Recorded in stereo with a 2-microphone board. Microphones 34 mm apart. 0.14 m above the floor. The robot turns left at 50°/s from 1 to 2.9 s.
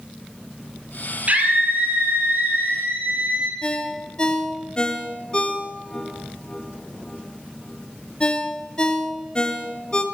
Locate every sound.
1.3 s a scream: 45° right, 4 m; by 3.5 s 125° right, 4 m
3.6 s a ringtone: 25° left (ahead or behind), 1.3 m